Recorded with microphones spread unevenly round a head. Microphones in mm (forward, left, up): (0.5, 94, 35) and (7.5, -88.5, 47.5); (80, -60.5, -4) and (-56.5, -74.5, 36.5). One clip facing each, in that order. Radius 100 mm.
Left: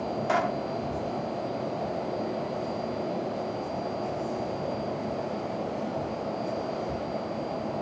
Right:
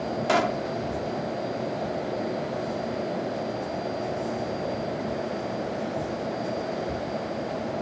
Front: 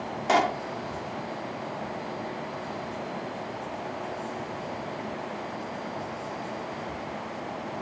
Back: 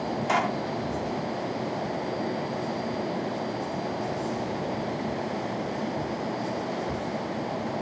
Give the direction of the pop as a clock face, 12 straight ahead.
1 o'clock.